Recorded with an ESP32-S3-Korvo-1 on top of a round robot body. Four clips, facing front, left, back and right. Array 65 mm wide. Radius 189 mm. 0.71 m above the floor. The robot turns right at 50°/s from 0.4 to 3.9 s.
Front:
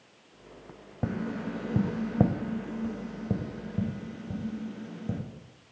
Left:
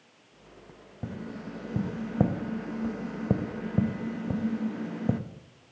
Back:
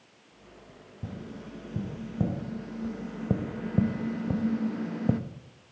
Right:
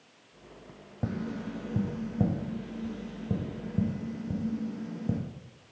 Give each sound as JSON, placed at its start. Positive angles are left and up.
{"t": 1.0, "sound": "tapping", "azimuth_deg": -10, "distance_m": 0.7}